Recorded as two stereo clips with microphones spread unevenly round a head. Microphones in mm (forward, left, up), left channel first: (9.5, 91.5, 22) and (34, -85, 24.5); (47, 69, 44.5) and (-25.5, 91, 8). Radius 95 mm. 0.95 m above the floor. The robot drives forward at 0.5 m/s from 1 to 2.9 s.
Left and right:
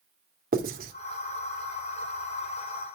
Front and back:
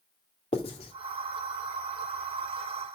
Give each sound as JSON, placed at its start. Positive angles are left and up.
{"t": 0.5, "sound": "writing", "azimuth_deg": -40, "distance_m": 2.0}